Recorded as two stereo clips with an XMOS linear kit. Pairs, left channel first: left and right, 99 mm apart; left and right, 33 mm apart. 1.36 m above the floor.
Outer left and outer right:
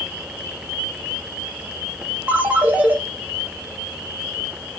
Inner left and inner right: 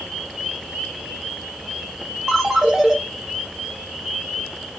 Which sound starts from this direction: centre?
A ringtone, at 2.3 s.